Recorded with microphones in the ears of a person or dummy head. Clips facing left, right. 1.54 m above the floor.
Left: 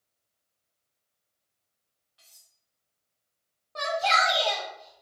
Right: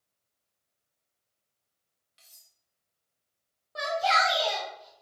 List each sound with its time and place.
2.2 s cutlery clinking: 20° right (ahead or behind), 0.8 m
3.8 s a shout: 5° right (ahead or behind), 0.9 m